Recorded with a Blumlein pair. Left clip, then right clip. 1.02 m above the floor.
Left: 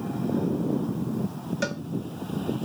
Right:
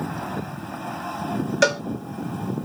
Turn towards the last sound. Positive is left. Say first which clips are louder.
# right 11 dB
turn(degrees=-30)